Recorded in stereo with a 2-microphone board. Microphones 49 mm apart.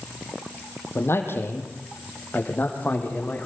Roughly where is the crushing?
I don't hear crushing.